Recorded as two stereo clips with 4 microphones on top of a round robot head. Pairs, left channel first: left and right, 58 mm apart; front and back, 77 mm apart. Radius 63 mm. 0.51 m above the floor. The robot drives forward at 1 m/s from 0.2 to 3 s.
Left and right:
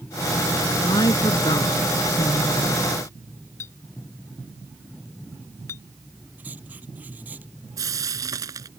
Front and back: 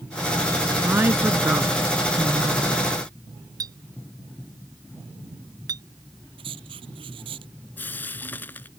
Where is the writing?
160° right.